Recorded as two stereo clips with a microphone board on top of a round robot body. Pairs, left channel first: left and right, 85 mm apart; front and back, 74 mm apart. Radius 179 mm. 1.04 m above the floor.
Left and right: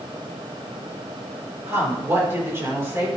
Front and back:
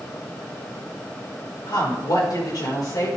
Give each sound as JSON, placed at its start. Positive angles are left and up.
{"t": 1.7, "sound": "a woman speaking", "azimuth_deg": -30, "distance_m": 5.0}